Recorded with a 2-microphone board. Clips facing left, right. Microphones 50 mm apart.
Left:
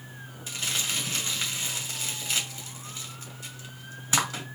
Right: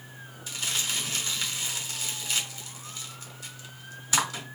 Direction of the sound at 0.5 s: 30° left (ahead or behind).